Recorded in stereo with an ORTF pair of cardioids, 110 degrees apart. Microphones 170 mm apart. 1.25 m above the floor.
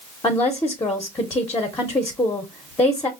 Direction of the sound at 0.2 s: 20° left.